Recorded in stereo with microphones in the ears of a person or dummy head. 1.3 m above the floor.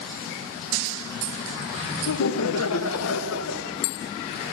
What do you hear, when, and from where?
2.1 s laughter: 65° left (ahead or behind), 0.6 m; by 3.8 s 75° left (ahead or behind), 1.4 m